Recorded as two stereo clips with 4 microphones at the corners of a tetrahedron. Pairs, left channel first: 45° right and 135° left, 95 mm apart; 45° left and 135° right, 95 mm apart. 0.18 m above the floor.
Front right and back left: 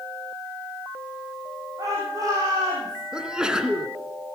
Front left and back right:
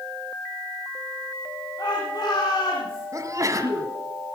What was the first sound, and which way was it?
A shout, 85° left.